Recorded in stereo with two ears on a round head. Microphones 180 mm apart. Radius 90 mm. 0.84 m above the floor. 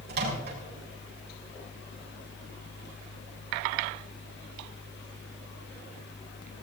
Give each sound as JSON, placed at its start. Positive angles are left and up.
{"t": 0.1, "sound": "a microwave", "side_deg": -55, "distance_m": 5.5}